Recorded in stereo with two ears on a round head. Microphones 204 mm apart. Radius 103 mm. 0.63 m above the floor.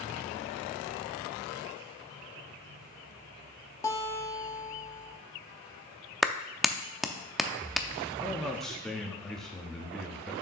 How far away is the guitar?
About 1.2 m.